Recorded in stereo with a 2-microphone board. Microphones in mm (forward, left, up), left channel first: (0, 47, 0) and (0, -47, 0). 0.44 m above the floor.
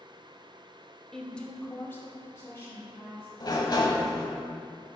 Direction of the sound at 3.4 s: 50° left (ahead or behind).